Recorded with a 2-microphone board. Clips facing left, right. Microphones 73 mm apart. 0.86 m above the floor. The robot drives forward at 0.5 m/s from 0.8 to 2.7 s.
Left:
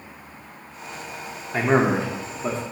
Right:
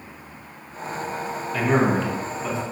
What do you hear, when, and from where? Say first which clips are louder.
1.5 s a man speaking: left 1 dB; 30° left (ahead or behind), 0.7 m